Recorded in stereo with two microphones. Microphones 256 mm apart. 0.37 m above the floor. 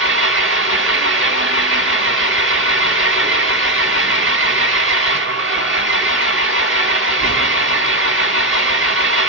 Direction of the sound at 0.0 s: 55° right (ahead or behind).